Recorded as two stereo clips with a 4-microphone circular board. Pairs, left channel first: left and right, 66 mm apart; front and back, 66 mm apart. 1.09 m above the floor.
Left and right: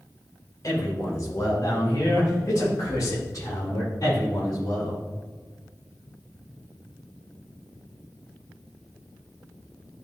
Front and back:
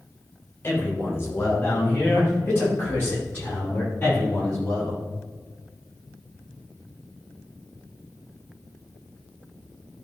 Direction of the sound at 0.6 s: 50° left.